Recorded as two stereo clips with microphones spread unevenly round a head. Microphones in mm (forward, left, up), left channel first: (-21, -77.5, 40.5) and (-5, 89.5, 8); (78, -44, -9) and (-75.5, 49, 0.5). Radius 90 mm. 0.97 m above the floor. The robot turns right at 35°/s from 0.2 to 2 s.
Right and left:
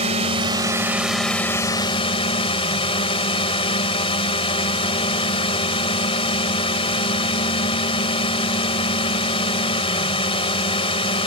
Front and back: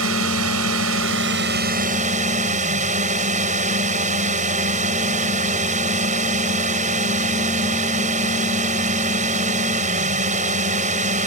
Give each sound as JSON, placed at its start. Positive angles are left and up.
{"t": 0.0, "sound": "a drone", "azimuth_deg": 140}